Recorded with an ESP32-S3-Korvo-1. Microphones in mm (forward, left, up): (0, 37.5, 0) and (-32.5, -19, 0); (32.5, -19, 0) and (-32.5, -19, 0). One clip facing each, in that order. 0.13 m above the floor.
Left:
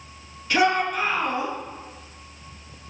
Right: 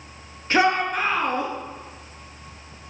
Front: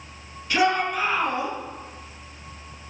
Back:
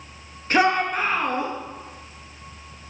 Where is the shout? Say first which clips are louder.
Right 1 dB, back 2 dB; 160° right, 1.8 m; by 1.5 s 150° right, 2.5 m.